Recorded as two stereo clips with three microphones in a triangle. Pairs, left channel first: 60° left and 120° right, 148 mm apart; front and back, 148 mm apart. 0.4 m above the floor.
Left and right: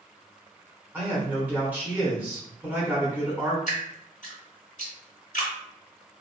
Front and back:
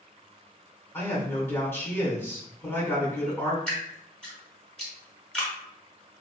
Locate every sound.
0.9 s a man speaking: 55° right, 1.3 m
3.7 s dripping: 85° left, 1.1 m